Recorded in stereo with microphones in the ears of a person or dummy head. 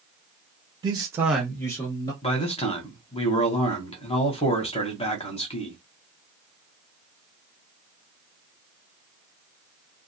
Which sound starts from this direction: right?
A man speaking, at 0.8 s.